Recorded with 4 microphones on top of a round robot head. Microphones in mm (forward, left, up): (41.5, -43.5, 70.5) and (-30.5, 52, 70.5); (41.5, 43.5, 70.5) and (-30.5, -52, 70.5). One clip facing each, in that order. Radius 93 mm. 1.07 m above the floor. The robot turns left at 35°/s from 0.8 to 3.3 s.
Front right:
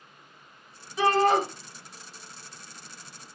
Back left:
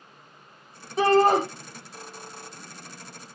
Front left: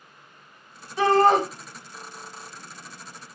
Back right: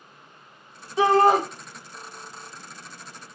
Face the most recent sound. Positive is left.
turn(degrees=85)